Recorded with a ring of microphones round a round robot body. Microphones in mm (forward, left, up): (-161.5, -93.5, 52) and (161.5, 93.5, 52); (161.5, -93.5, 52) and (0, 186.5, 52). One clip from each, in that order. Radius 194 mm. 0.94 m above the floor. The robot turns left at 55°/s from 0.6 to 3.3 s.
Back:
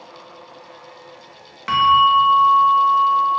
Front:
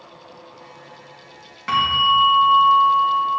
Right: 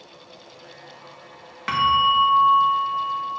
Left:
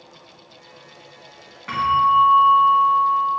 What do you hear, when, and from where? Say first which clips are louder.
1.7 s a bell: back 4 dB, left 1 dB; 80° right, 1.5 m; by 3.4 s 170° right, 1.5 m